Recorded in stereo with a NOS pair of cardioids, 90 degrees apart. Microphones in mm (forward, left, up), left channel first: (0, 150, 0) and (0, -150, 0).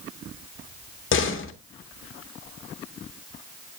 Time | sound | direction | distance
1.1 | a door slam | 45° left | 1.7 m